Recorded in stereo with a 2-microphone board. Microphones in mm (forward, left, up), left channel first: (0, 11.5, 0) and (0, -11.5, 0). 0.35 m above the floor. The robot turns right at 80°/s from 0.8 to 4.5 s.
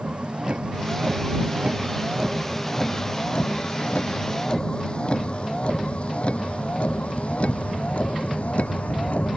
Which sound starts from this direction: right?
A vehicle, at 0.0 s.